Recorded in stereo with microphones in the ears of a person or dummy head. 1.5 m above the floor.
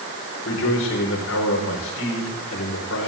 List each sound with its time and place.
0.5 s a man speaking: 75° left (ahead or behind), 5.5 m